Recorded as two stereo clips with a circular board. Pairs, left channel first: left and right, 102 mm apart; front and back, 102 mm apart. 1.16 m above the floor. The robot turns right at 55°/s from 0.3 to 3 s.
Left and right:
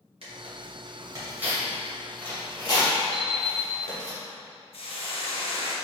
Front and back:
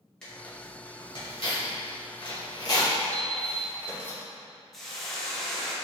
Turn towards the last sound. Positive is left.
turn(degrees=85)